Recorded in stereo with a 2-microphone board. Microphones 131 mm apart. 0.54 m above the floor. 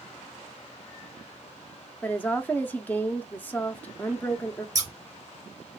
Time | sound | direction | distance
2.0 | a woman speaking | 15° left (ahead or behind) | 0.6 m
4.8 | scissors | 25° right (ahead or behind) | 1.7 m